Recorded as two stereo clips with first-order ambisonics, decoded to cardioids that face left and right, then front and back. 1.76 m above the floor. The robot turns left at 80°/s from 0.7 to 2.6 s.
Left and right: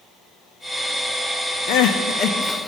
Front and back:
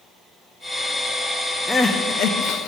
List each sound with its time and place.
1.7 s crying: 80° left, 0.5 m; by 2.7 s 5° left, 0.5 m